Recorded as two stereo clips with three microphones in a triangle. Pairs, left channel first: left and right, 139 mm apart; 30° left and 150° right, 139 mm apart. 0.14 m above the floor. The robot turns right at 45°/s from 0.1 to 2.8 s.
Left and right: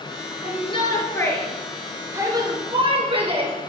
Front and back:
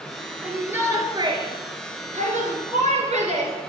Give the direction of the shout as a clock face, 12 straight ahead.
8 o'clock.